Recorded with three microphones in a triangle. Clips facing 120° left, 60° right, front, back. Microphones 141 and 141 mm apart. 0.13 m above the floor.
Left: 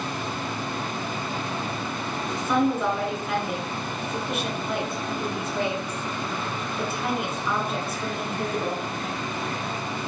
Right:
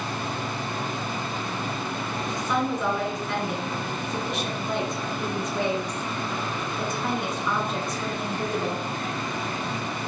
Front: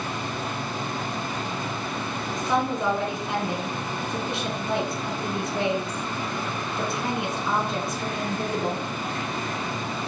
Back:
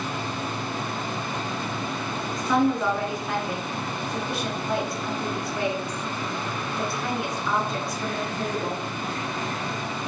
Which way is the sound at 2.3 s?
40° left.